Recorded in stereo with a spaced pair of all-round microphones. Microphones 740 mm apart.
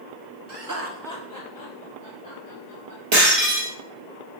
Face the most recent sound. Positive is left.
turn(degrees=-55)  # may be behind; listen again after turning